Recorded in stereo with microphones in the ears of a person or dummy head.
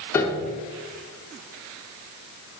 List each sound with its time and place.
0.1 s a piano: 15° left (ahead or behind), 0.8 m